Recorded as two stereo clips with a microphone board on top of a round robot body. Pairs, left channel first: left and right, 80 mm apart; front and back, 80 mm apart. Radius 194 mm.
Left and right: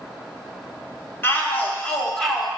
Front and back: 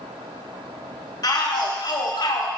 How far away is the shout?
About 2 m.